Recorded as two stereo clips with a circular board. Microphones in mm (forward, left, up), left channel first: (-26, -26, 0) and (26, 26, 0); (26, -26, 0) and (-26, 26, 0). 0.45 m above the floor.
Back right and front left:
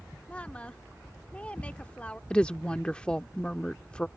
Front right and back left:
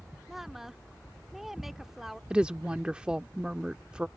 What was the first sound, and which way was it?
A woman speaking, 150° right.